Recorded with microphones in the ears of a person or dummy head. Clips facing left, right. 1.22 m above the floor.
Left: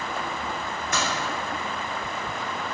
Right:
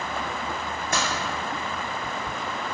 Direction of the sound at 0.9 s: 35° right (ahead or behind).